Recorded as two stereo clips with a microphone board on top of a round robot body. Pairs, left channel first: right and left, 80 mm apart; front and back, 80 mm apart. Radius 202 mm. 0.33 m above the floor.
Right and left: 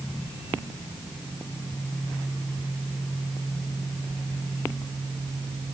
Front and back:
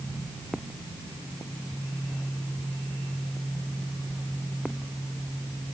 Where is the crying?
I don't hear crying.